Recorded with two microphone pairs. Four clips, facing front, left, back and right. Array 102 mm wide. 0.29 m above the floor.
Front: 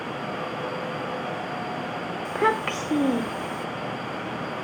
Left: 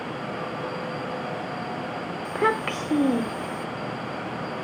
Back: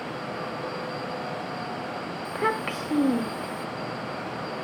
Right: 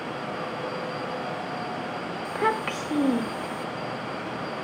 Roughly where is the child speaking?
Ahead left.